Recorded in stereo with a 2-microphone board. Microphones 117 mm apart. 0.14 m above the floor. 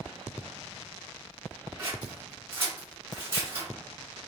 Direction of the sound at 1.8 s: 20° right (ahead or behind).